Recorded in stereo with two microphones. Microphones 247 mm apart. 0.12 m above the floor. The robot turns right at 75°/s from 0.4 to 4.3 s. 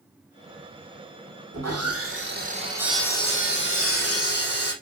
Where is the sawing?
105° right, 5.5 m; by 4.7 s 100° left, 5.5 m.